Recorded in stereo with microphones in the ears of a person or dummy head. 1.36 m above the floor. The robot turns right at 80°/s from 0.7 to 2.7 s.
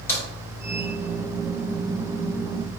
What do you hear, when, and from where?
0.1 s a crack: 15° left (ahead or behind), 1.1 m